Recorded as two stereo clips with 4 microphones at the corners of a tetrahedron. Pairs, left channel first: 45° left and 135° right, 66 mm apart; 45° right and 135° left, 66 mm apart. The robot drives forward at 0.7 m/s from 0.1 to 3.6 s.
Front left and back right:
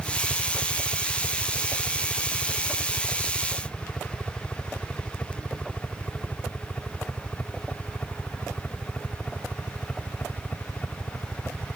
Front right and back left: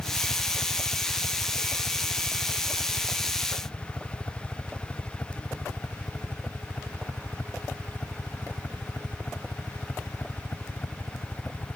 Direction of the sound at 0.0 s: 5° right.